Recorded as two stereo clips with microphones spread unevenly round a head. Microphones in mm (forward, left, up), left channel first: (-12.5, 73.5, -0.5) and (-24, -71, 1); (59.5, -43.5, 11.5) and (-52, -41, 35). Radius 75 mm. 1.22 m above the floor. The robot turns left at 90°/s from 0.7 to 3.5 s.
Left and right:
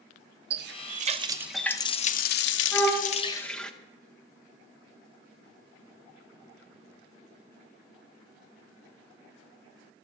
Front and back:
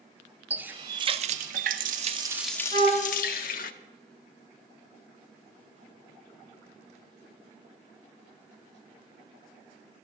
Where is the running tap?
110° right, 0.6 m; by 3.7 s straight ahead, 0.6 m.